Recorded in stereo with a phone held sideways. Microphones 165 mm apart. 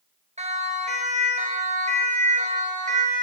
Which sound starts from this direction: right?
A siren, at 0.4 s.